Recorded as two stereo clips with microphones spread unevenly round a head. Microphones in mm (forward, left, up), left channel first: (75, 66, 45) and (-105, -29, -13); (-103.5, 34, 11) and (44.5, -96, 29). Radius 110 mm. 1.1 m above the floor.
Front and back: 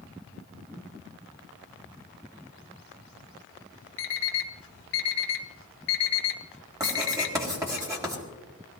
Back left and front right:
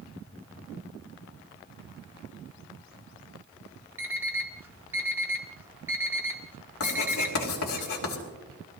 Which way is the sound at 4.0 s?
35° left.